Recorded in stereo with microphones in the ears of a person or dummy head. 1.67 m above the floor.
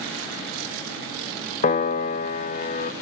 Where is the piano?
35° left (ahead or behind), 0.6 m.